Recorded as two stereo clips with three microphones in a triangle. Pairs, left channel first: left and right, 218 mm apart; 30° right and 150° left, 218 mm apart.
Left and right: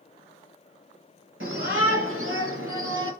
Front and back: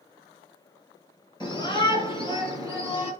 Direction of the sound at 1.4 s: 100° right.